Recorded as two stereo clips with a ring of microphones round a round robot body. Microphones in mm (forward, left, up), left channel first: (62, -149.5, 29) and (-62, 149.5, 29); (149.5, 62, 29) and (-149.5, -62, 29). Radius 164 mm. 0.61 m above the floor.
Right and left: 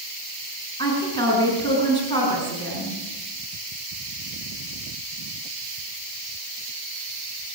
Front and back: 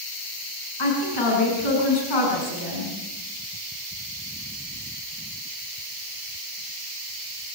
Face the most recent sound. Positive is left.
turn(degrees=10)